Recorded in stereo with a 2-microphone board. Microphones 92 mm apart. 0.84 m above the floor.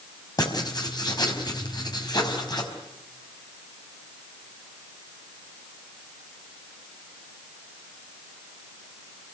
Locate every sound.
0.4 s writing: 45° left (ahead or behind), 5 m